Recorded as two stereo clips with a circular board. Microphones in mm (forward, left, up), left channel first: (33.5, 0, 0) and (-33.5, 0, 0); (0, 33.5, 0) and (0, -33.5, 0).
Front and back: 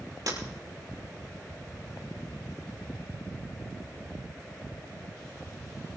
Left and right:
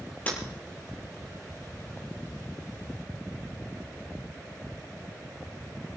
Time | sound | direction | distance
0.3 | breaking glass | 155° left | 5.5 m